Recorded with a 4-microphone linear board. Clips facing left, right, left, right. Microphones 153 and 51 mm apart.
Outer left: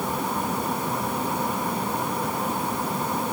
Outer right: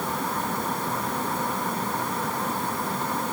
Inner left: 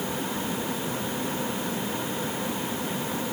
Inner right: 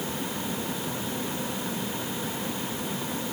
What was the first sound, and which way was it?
Only background noise.